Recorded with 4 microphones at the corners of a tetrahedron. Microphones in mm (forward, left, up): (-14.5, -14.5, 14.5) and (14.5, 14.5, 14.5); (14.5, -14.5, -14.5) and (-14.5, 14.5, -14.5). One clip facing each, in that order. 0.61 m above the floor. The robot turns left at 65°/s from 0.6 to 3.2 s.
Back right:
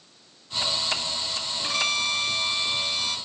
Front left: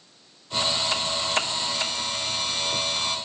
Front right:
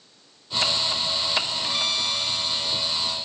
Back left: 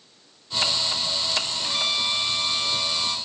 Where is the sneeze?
I don't hear a sneeze.